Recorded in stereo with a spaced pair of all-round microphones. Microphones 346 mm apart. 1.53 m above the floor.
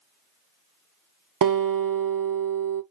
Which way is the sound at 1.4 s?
75° right (ahead or behind).